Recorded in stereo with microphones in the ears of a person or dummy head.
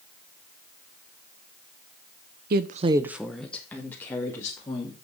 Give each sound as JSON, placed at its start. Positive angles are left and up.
{"t": 2.5, "sound": "a woman speaking", "side_deg": -40, "distance_m": 0.6}